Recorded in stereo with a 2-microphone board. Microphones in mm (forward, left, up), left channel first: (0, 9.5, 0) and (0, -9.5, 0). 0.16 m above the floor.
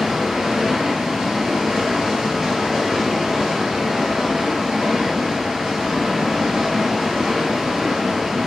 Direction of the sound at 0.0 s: 35° right (ahead or behind).